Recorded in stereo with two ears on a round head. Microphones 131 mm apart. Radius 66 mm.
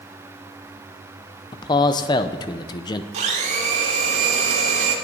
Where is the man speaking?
30° left (ahead or behind), 0.6 m.